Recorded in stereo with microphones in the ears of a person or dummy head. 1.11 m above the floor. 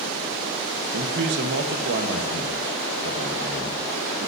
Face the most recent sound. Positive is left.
turn(degrees=-60)  # may be behind; listen again after turning